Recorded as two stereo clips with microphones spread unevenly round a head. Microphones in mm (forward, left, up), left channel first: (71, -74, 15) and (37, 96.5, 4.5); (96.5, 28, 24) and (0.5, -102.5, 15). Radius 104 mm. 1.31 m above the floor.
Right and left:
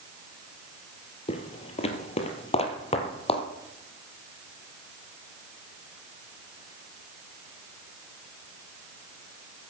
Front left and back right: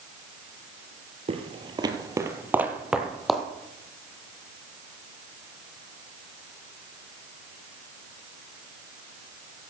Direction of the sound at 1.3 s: 100° right.